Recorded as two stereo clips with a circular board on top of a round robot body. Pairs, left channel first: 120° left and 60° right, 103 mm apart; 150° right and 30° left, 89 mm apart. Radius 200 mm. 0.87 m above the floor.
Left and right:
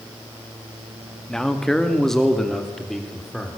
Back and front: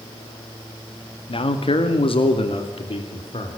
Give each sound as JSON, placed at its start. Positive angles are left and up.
{"t": 1.3, "sound": "a man speaking", "azimuth_deg": -155, "distance_m": 1.9}